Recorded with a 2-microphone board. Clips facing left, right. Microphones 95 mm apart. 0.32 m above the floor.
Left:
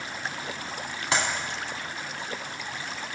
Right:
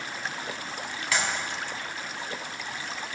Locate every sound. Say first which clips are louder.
1.1 s a clap: left 2 dB; 30° left (ahead or behind), 2.0 m